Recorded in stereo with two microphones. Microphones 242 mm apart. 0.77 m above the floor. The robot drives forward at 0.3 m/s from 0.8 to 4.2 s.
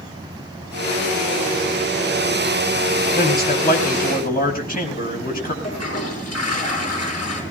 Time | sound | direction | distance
3.1 | a man speaking | 40° left (ahead or behind) | 5 m
5.6 | a toilet flushing | 90° left | 6 m